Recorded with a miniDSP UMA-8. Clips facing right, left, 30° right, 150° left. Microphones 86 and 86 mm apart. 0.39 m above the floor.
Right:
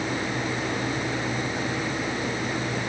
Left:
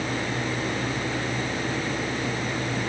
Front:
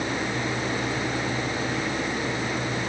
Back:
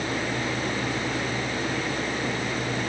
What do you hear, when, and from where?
Only background noise.